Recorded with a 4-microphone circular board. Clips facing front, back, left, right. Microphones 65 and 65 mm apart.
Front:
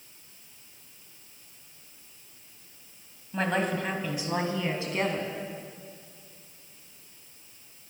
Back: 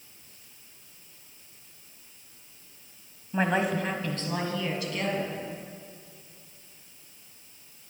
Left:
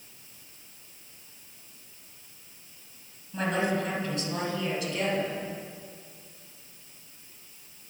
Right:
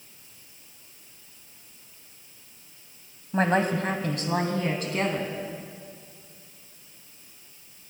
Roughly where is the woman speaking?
Right.